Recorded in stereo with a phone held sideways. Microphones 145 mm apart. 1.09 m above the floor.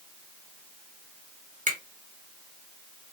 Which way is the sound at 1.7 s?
65° right (ahead or behind).